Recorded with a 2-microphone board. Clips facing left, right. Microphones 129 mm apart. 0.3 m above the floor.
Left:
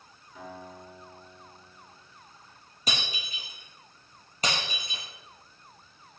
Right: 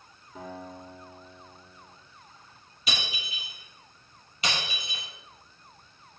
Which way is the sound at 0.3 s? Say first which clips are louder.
Right 3 dB; 30° right (ahead or behind).